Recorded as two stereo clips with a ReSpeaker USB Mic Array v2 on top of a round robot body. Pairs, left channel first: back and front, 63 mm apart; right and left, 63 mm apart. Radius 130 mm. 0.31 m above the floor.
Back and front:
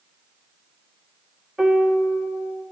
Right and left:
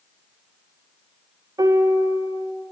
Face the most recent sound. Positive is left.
turn(degrees=85)